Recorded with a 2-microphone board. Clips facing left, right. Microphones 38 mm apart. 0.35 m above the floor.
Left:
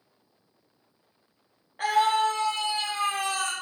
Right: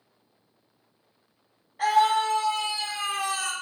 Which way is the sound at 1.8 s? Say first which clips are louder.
Right 1 dB; 35° left (ahead or behind).